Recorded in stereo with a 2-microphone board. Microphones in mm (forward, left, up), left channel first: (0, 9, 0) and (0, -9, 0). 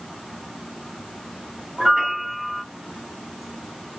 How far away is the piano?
About 1.7 m.